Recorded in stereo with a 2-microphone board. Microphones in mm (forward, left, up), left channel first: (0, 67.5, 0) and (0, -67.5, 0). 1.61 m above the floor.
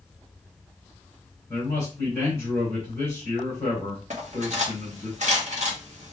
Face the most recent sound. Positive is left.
turn(degrees=-60)  # may be behind; listen again after turning